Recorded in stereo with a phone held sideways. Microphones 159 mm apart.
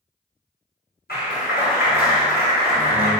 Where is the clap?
80° left, 4 m.